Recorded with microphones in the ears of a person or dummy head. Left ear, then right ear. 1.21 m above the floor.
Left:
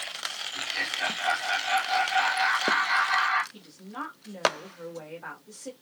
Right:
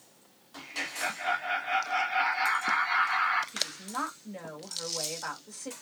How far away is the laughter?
About 1.4 m.